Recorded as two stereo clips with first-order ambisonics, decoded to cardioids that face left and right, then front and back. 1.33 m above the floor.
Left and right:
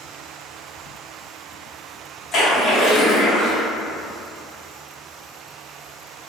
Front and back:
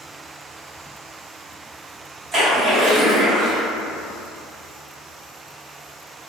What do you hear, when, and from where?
2.3 s a splash: 130° left, 1.0 m